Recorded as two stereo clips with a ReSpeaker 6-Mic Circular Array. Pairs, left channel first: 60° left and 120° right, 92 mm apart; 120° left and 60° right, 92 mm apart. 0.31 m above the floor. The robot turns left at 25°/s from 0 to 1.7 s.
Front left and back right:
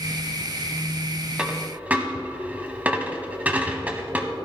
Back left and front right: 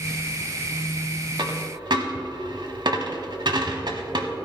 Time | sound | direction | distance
1.4 | a dropped coin | 45° right | 1.1 m